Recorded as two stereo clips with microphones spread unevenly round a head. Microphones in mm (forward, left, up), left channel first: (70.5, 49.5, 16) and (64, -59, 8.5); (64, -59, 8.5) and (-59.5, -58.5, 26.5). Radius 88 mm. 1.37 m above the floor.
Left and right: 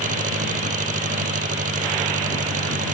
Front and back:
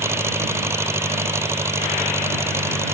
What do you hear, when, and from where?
0.0 s an engine running: 110° right